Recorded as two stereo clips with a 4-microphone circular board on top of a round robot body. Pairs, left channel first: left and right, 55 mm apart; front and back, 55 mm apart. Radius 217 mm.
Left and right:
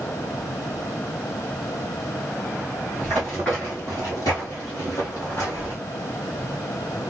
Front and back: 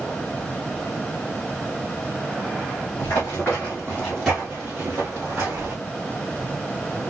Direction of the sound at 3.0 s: Straight ahead.